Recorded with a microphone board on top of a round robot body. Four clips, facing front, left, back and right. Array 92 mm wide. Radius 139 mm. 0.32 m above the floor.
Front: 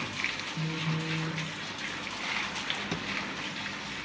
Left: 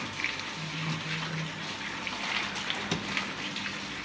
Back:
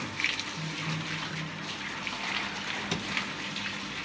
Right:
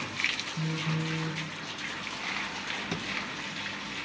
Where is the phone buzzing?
55° right, 5.5 m.